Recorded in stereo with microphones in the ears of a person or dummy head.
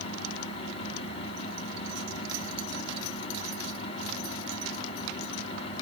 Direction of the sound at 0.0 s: 40° left (ahead or behind).